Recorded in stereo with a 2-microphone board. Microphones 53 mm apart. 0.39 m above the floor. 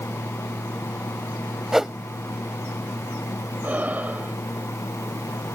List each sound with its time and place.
1.7 s a whoosh: 5° right (ahead or behind)
3.6 s breathing: 35° right (ahead or behind)